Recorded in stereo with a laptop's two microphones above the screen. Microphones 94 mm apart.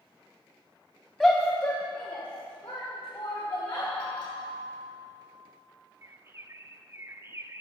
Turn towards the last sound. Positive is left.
turn(degrees=-30)  # may be behind; listen again after turning